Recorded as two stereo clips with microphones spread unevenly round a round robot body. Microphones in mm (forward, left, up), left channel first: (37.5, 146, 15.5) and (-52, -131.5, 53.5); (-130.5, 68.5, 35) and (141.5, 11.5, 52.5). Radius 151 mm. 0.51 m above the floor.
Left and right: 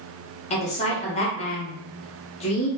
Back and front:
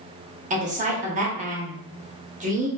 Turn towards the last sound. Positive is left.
turn(degrees=35)